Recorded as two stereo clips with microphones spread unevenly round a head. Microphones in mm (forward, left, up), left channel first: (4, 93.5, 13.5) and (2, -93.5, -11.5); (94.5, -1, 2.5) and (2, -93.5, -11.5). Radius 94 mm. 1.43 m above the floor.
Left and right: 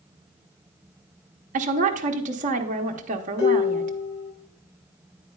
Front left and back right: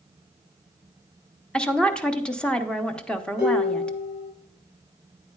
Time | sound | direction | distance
1.5 | a woman speaking | 40° right | 0.9 m
3.4 | dishes clattering | 100° left | 5.5 m